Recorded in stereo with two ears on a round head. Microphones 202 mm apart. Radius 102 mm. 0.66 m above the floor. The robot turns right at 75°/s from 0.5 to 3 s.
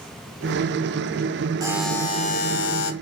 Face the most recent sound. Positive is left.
turn(degrees=85)